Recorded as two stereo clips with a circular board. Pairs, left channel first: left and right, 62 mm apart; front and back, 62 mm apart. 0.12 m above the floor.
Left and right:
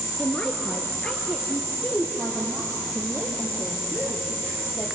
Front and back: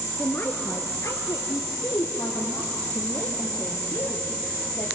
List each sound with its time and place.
0.2 s a woman speaking: 35° left, 1.5 m; by 4.9 s 5° right, 4.5 m